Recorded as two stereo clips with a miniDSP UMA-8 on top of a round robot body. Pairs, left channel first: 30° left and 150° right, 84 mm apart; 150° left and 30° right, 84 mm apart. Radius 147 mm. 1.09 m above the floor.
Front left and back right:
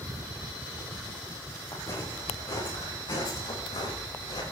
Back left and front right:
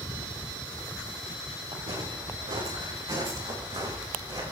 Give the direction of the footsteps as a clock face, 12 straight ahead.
1 o'clock.